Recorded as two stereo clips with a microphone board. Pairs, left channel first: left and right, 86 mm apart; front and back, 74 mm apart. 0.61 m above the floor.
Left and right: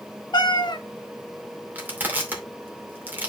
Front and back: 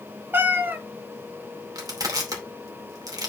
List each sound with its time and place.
0.3 s a cat meowing: 120° left, 0.9 m
1.8 s crushing: 155° right, 2.5 m